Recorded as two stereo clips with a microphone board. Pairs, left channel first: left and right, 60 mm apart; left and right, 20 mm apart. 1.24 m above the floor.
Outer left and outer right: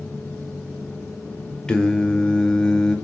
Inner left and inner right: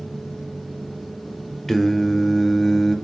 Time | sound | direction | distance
1.7 | singing | 10° left (ahead or behind) | 1.3 m